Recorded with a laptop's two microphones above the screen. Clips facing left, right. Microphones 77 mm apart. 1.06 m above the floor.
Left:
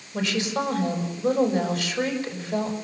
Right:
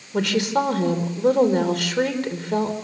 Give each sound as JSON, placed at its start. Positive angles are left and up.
{"t": 0.1, "sound": "a woman speaking", "side_deg": -65, "distance_m": 4.5}